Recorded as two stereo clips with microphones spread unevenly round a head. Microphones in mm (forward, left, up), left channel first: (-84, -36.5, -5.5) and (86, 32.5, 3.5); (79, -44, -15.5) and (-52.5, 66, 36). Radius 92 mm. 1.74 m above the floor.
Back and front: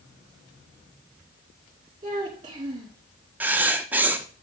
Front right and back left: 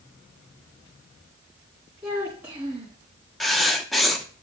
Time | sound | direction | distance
2.0 | a child speaking | 80° left | 2 m
3.4 | writing | 85° left | 0.9 m